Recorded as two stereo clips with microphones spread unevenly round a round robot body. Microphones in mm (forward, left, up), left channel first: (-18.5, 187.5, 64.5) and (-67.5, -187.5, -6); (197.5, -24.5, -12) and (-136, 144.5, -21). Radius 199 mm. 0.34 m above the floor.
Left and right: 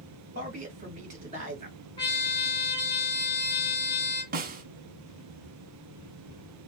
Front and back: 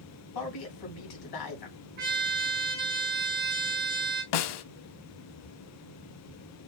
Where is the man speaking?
40° right, 2.5 m.